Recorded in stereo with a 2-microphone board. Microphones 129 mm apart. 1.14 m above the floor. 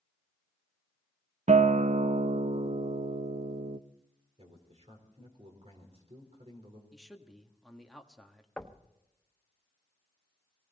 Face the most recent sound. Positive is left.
turn(degrees=5)  # may be behind; listen again after turning